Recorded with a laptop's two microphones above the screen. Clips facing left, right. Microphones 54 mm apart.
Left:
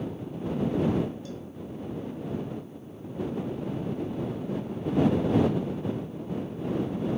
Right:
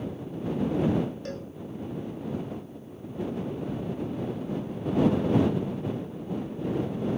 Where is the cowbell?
60° right (ahead or behind).